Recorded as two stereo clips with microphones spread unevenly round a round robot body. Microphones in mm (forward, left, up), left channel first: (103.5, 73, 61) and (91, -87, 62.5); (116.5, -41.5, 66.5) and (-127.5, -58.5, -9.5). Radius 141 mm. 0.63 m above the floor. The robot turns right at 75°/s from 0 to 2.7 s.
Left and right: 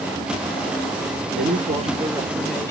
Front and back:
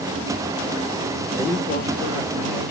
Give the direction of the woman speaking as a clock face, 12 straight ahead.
3 o'clock.